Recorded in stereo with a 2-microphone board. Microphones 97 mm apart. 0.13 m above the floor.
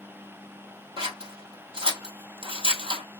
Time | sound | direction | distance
1.0 | scissors | 60° right (ahead or behind) | 1.2 m